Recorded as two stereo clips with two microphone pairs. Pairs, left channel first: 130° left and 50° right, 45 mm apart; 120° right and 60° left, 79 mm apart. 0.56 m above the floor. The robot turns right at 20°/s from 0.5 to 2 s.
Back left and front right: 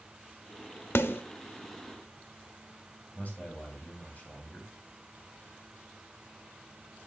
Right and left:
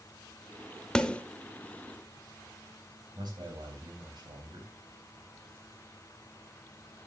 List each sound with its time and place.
0.9 s a snare drum: 155° left, 0.6 m; by 1.2 s 160° left, 0.6 m
3.1 s a man speaking: 75° left, 3 m